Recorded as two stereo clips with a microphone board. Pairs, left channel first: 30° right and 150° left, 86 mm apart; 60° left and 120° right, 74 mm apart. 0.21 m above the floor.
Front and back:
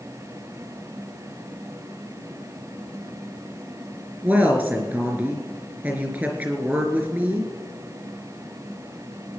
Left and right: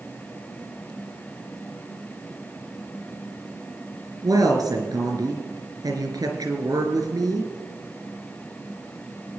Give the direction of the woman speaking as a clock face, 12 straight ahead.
5 o'clock.